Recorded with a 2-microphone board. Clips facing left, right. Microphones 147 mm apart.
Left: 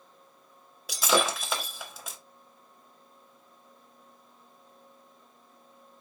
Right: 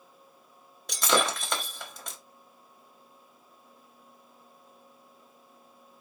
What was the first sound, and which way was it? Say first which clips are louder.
Breaking glass: left 1 dB; 5° left (ahead or behind).